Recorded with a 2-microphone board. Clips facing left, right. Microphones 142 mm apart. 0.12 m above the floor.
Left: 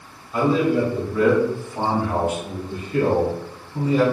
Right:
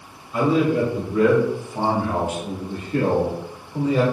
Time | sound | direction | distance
0.3 | a man speaking | centre (ahead or behind) | 1.3 m